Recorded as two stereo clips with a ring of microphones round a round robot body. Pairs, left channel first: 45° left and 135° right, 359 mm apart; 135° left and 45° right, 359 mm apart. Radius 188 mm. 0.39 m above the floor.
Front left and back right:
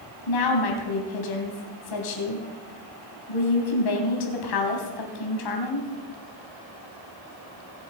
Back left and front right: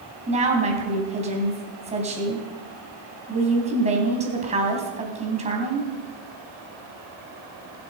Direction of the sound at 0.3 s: 25° left.